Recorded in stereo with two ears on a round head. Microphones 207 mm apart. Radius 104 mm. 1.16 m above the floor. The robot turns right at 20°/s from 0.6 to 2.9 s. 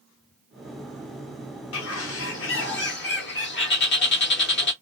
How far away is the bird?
About 1.5 m.